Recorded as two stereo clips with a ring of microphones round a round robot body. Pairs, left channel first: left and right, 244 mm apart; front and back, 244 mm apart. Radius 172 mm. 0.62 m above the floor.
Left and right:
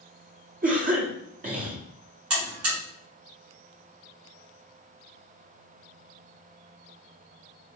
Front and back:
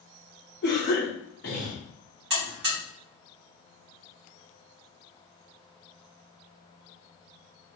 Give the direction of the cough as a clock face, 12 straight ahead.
1 o'clock.